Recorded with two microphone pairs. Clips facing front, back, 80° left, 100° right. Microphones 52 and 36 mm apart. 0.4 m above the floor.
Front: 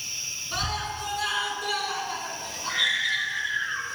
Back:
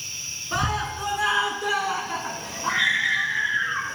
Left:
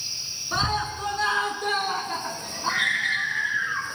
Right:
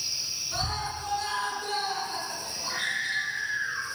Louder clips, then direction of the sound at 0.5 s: Back 5 dB, left 7 dB; 120° left.